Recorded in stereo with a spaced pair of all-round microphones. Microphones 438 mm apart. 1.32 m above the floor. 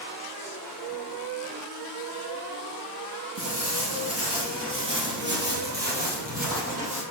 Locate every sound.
3.4 s footsteps: 40° right (ahead or behind), 1.6 m; by 7.0 s 15° right (ahead or behind), 3 m